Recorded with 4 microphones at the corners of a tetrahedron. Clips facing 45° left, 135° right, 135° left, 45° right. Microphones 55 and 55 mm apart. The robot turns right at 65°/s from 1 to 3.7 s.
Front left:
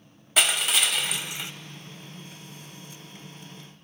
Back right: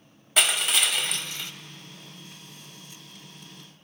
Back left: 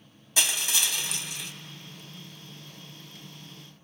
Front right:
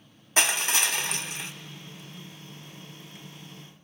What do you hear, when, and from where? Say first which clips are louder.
0.4 s crushing: even, front right 4 dB; 45° right, 0.5 m; by 1.5 s 10° right, 0.5 m